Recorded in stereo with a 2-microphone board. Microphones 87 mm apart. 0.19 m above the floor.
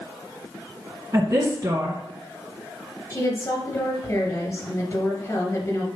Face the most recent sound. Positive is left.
turn(degrees=30)  # may be behind; listen again after turning